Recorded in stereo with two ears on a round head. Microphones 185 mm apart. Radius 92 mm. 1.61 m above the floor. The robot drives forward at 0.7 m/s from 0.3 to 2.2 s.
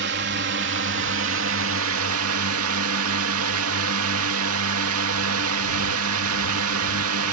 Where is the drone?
55° right (ahead or behind); by 7.3 s 80° right.